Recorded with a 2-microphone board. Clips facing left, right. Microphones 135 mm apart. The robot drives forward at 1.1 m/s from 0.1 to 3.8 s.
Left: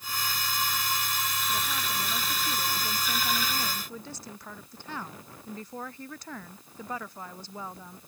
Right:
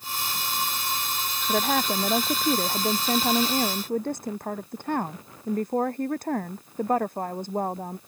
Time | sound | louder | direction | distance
1.5 | a woman speaking | right 9 dB | 65° right (ahead or behind) | ?